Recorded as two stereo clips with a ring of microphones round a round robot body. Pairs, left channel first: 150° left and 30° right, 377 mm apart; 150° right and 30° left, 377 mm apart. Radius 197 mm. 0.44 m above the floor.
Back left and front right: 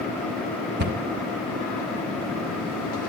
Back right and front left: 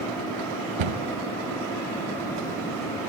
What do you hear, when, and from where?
0.8 s a cupboard door: 35° left, 1.6 m